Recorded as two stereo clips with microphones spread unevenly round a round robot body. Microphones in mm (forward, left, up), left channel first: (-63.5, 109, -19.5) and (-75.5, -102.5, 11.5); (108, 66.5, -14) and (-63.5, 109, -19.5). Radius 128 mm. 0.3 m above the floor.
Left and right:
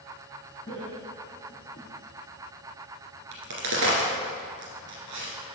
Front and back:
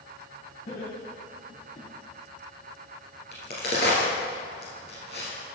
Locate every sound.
0.7 s laughter: 15° left, 2 m; by 1.9 s 25° left, 3.5 m
3.3 s a crack: 70° right, 2.0 m